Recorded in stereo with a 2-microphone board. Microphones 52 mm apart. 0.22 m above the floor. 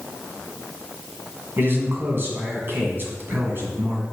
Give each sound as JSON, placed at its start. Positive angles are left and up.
{"t": 1.6, "sound": "a man speaking", "side_deg": -45, "distance_m": 1.8}